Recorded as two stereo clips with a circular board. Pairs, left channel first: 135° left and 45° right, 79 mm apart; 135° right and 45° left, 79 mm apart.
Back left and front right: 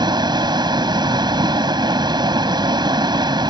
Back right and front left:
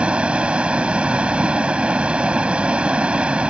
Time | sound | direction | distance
0.0 | running water | 30° right | ?